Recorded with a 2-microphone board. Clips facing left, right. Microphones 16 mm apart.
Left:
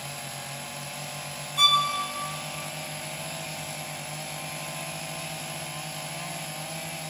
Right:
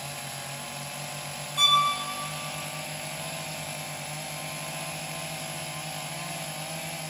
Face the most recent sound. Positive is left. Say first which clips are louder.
# left 1 dB
turn(degrees=-5)  # may be behind; listen again after turning